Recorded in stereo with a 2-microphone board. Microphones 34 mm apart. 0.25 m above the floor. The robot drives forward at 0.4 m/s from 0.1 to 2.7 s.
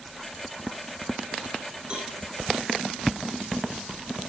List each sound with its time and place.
1.9 s a cowbell: 30° right (ahead or behind), 2.0 m